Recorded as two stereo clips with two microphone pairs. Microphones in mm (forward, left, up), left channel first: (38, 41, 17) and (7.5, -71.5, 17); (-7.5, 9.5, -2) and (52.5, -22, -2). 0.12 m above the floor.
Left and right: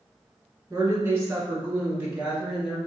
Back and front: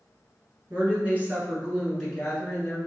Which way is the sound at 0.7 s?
55° right.